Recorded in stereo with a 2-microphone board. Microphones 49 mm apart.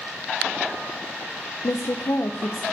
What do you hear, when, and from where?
1.6 s a woman speaking: 75° left (ahead or behind), 0.7 m